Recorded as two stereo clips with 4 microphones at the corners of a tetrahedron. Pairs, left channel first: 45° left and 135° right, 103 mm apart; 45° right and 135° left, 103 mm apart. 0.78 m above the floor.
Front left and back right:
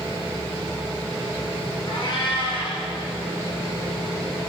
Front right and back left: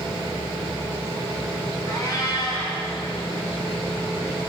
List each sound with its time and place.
1.9 s a cat meowing: 10° left, 3 m